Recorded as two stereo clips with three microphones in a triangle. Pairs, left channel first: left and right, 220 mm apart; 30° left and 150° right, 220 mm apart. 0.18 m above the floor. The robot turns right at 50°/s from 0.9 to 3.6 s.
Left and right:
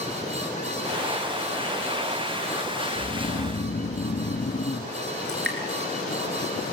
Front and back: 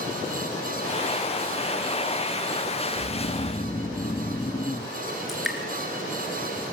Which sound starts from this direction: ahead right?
Dripping, at 5.3 s.